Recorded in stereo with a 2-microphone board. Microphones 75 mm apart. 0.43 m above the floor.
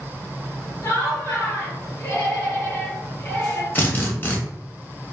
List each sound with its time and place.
0.8 s laughter: 40° left (ahead or behind), 1.4 m
3.8 s a drill: 30° left (ahead or behind), 0.7 m